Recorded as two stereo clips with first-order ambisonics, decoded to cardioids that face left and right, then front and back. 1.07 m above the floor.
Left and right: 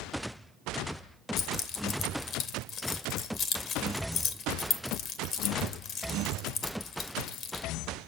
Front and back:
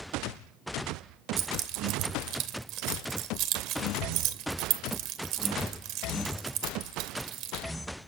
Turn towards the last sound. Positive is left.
turn(degrees=140)